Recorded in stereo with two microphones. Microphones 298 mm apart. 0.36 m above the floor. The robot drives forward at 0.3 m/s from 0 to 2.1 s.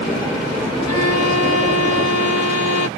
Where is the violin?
60° left (ahead or behind); by 2.9 s 65° left (ahead or behind).